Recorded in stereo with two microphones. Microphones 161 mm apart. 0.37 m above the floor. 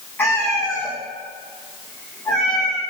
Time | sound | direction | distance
0.2 | a cat meowing | 10° left (ahead or behind) | 4 m